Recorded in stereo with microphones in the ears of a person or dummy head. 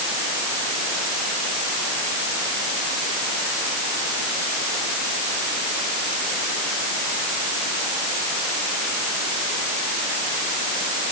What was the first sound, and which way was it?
Only background noise.